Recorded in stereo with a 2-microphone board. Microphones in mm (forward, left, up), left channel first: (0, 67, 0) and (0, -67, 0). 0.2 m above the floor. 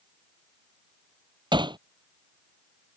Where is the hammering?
35° right (ahead or behind).